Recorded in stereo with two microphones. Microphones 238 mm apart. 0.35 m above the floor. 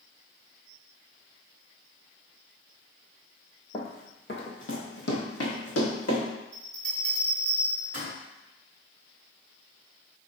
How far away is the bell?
About 1.5 m.